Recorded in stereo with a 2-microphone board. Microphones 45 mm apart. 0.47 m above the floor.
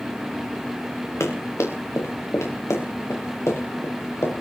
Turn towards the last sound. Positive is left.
turn(degrees=65)  # may be behind; listen again after turning